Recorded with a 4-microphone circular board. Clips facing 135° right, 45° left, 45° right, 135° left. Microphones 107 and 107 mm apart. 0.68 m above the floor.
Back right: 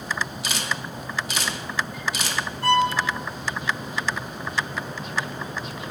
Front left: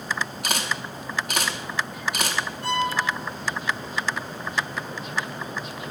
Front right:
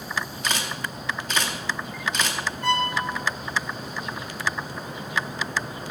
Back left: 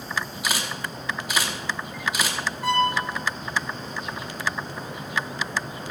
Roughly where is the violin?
Behind right.